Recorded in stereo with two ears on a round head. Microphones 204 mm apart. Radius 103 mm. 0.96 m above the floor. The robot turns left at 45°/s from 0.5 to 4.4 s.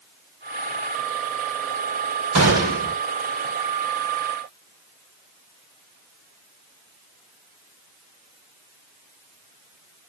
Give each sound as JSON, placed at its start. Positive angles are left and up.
{"t": 2.4, "sound": "a gunshot", "side_deg": -75, "distance_m": 4.5}